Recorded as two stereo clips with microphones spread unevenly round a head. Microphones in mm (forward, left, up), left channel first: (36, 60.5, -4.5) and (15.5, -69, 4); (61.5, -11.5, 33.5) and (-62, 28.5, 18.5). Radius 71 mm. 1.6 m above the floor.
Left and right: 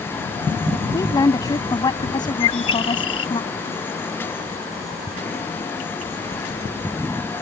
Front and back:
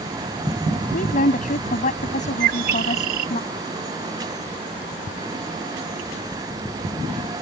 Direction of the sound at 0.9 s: 15° left.